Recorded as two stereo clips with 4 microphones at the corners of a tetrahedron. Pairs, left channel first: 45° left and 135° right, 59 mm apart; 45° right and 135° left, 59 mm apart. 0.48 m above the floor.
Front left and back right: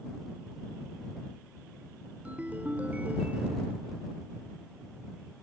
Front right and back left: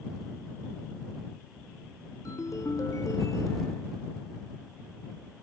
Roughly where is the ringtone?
Right.